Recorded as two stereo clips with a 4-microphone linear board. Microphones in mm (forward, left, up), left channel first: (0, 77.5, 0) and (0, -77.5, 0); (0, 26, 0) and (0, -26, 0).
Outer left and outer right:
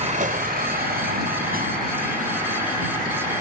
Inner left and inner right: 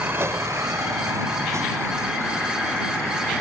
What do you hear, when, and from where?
0.0 s a vehicle: 45° right (ahead or behind); by 3.4 s 60° right (ahead or behind)